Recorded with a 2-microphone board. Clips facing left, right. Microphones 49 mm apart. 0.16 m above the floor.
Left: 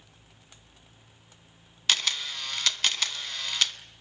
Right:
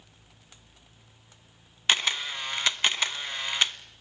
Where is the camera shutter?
20° right (ahead or behind), 0.8 m.